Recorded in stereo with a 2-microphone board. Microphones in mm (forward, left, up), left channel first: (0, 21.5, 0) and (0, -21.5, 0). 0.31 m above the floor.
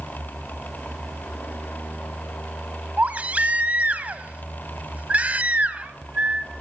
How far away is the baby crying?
About 1.3 m.